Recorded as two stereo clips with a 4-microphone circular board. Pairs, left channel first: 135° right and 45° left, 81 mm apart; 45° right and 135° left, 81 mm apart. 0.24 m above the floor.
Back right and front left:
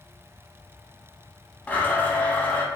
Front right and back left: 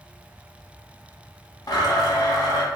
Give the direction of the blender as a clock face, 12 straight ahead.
2 o'clock.